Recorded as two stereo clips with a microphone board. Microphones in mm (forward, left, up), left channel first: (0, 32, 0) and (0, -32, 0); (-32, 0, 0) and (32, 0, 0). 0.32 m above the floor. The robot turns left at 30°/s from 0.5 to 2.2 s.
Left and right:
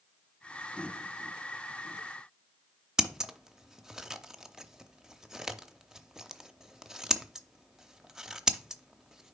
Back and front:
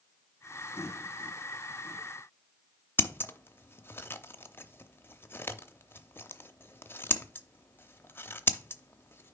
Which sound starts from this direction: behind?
Scissors, at 3.0 s.